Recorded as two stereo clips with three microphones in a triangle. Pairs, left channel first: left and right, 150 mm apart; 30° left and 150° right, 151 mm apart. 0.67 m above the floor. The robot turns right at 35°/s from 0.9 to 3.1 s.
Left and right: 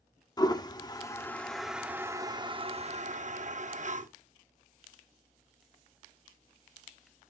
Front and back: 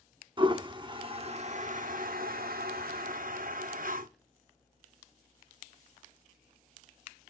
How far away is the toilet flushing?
About 0.6 m.